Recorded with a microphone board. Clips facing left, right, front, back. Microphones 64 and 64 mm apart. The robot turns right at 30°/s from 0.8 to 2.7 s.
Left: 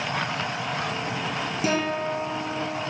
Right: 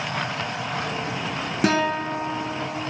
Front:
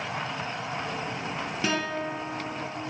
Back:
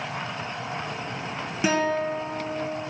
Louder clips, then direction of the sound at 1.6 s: Right 4 dB, back 7 dB; 105° right.